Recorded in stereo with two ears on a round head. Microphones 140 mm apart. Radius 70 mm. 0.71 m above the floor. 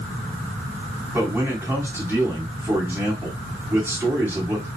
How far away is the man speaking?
About 2 m.